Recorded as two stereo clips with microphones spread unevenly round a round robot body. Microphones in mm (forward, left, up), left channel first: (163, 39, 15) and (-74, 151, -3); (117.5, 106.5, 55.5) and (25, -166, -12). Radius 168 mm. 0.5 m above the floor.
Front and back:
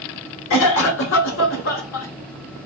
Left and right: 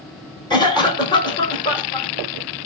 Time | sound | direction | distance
0.5 | a cough | 10° right | 1.4 m